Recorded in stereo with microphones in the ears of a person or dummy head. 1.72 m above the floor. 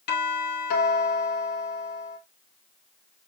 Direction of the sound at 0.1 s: 55° left (ahead or behind).